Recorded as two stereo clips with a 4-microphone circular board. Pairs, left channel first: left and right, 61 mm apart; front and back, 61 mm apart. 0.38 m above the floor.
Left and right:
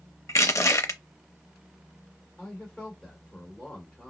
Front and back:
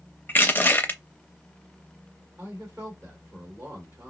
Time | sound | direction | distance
0.3 | crushing | 55° left | 0.5 m
2.4 | a man speaking | 165° left | 1.6 m